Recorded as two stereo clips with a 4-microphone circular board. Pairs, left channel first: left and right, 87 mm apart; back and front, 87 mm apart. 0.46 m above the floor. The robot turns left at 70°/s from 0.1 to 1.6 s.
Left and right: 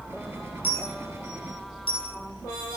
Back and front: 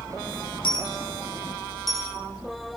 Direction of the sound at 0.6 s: 160° left.